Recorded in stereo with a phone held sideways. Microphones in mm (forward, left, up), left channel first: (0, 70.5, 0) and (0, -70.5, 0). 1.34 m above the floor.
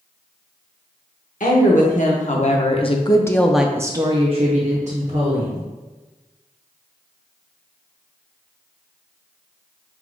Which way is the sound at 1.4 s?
70° left (ahead or behind).